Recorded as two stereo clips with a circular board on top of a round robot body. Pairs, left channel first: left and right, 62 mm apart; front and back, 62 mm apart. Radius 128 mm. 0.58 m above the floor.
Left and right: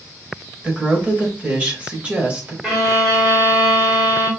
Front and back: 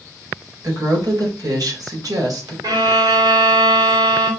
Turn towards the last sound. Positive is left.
turn(degrees=-170)